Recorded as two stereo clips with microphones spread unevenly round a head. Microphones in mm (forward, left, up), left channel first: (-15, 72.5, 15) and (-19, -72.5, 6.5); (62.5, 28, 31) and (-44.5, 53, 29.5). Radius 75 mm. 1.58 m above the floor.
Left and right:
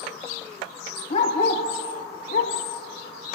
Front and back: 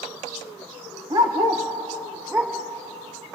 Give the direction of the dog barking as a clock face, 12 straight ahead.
8 o'clock.